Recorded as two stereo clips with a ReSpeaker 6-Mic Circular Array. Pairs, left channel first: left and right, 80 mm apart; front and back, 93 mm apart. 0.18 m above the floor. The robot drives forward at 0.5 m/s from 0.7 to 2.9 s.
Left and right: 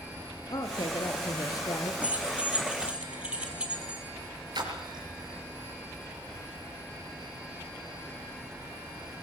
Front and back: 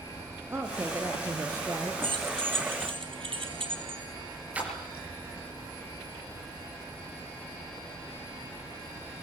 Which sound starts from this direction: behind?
Keys jangling, at 2.0 s.